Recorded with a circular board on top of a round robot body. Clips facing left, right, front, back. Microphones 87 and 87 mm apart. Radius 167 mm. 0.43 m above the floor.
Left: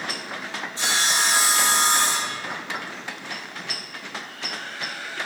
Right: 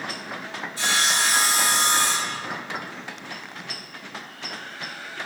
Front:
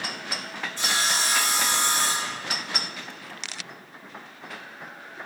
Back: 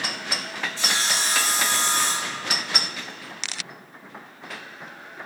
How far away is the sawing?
About 2.5 m.